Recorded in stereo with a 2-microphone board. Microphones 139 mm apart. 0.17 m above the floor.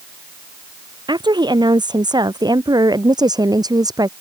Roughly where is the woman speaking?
Right.